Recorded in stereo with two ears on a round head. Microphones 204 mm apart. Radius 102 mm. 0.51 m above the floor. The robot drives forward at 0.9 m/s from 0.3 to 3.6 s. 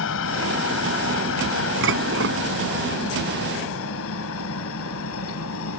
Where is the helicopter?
60° left (ahead or behind); by 5.8 s 70° left (ahead or behind).